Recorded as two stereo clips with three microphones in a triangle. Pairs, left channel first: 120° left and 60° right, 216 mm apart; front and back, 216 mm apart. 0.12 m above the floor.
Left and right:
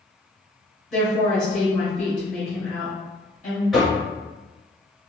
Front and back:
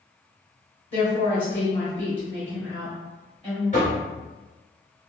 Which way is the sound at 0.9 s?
35° left.